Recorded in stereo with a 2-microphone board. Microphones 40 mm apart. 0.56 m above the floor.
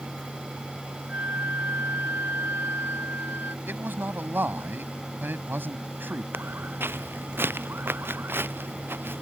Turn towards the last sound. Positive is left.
turn(degrees=-70)  # may be behind; listen again after turning